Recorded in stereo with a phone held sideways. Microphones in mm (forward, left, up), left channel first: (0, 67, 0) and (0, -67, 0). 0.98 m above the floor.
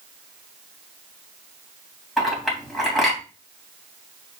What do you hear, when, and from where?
2.2 s a clink: centre (ahead or behind), 3.5 m